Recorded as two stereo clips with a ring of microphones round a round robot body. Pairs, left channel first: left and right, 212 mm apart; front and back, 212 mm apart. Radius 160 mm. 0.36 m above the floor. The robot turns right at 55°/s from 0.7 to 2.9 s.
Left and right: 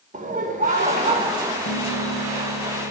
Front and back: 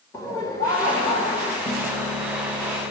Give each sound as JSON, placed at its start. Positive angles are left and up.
{"t": 0.1, "sound": "laughter", "azimuth_deg": -65, "distance_m": 1.4}
{"t": 1.6, "sound": "a piano", "azimuth_deg": 70, "distance_m": 1.6}